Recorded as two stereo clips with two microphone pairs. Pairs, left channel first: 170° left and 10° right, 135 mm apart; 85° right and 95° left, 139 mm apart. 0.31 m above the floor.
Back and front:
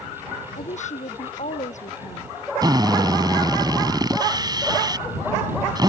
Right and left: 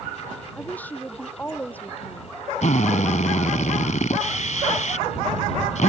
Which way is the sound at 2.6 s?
65° right.